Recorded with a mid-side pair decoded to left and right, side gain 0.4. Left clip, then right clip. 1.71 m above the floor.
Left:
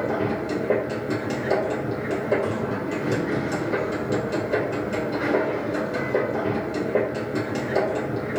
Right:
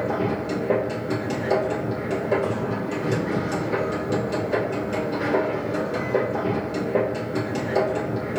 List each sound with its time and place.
0.0 s a machine running: 5° right, 2.5 m